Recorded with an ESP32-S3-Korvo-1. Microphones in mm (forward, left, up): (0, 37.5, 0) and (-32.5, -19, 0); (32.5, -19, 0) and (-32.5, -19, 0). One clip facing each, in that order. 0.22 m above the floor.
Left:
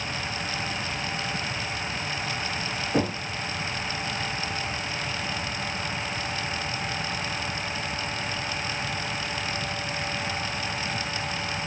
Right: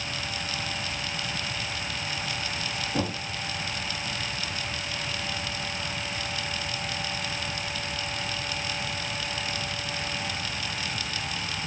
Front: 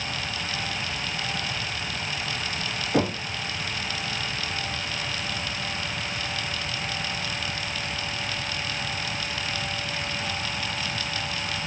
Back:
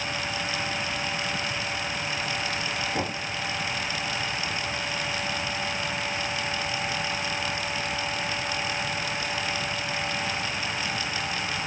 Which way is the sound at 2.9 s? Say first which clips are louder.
Left 5 dB, front 5 dB; 20° left.